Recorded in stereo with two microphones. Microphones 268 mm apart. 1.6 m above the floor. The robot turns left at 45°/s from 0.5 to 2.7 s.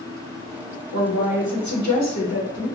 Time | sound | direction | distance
0.9 | a woman speaking | 115° left | 0.7 m